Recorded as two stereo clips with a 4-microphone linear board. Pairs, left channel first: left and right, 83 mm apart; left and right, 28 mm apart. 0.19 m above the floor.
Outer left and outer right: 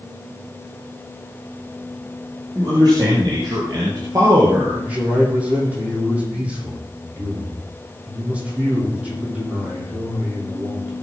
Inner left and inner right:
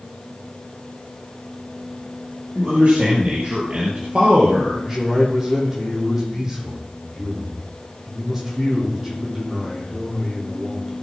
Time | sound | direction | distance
2.5 | a man speaking | 50° right (ahead or behind) | 6 m
4.8 | a man speaking | 15° right (ahead or behind) | 7 m